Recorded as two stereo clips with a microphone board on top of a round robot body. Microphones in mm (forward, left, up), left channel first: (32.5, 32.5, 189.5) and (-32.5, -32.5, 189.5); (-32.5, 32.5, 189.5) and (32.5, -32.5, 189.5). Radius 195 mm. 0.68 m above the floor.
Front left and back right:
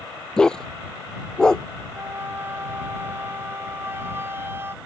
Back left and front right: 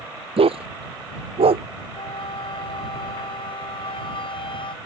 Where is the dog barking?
40° right.